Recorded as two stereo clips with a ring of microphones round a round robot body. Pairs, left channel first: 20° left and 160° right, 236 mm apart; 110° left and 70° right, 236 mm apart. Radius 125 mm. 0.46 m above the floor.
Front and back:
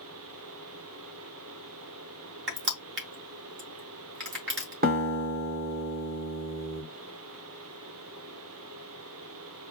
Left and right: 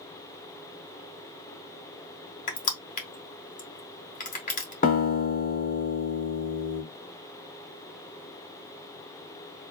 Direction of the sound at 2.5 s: 165° left.